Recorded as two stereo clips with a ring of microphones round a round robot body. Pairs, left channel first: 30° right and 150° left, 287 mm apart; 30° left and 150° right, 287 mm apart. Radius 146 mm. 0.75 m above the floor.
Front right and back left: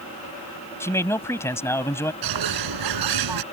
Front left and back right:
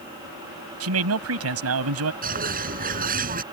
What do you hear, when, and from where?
0.8 s a man speaking: 110° right
2.2 s a bird: 150° left